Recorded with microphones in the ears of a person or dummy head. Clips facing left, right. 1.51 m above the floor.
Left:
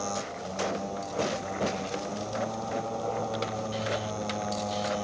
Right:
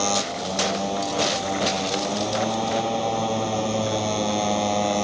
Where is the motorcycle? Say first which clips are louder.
Right 8 dB; 85° right.